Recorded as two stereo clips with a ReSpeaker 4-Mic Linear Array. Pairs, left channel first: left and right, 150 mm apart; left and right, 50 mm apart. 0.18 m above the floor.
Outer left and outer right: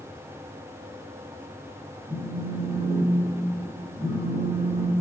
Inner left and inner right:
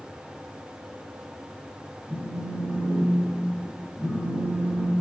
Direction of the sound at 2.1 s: 35° right (ahead or behind).